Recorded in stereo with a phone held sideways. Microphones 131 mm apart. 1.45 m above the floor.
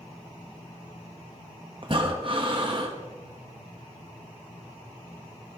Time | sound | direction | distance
1.8 | breathing | 45° right (ahead or behind) | 1.4 m